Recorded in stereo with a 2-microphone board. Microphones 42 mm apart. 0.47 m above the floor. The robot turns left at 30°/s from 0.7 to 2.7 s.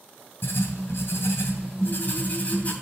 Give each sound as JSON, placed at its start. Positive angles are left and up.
{"t": 0.4, "sound": "writing", "azimuth_deg": 95, "distance_m": 2.5}